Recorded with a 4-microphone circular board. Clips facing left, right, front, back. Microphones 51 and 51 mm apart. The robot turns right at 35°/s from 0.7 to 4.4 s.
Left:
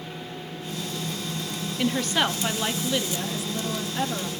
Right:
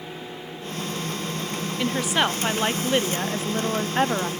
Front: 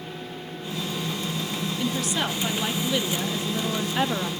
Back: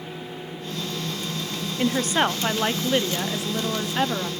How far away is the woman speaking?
About 0.7 m.